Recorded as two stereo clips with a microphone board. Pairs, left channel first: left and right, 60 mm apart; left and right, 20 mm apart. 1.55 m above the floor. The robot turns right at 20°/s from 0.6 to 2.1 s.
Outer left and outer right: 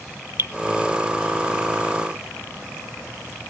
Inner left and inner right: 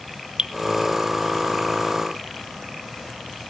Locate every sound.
0.4 s dripping: 45° right (ahead or behind), 0.8 m